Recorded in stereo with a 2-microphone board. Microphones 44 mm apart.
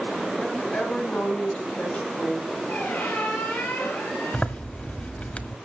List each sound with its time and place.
0.4 s a woman speaking: 20° left (ahead or behind), 9 m; by 2.6 s 25° left (ahead or behind), 9.5 m
2.7 s a squeak: 40° left (ahead or behind), 9.5 m
4.3 s a zipper: 25° left (ahead or behind), 1.5 m